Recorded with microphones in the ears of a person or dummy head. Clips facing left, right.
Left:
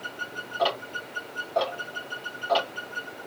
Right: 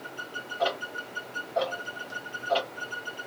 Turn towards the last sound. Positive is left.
turn(degrees=60)  # may be behind; listen again after turning